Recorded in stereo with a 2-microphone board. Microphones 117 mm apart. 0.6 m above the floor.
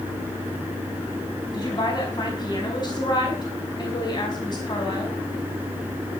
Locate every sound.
1.5 s a woman speaking: 35° left (ahead or behind), 5 m